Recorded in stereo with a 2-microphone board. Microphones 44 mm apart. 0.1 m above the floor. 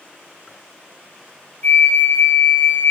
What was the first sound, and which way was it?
A flute, 50° left (ahead or behind).